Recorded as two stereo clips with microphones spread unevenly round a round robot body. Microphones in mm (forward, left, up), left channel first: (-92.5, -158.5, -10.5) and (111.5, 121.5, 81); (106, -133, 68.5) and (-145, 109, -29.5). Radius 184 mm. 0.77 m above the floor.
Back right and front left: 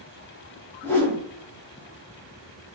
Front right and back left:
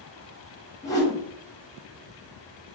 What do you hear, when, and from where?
0.8 s a whoosh: 150° right, 0.7 m